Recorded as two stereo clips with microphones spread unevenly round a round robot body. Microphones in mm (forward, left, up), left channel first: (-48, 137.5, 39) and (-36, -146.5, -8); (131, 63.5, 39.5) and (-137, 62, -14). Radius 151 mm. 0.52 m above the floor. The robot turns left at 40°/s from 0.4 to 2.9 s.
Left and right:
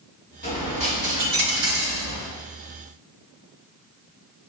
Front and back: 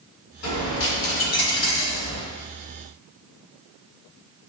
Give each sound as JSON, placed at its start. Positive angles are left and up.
{"t": 0.4, "sound": "a dropped coin", "azimuth_deg": 25, "distance_m": 2.0}